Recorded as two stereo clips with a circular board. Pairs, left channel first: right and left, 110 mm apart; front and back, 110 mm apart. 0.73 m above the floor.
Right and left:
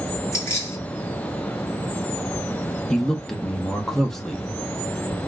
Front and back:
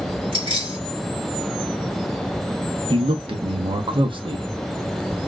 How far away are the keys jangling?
About 2.5 m.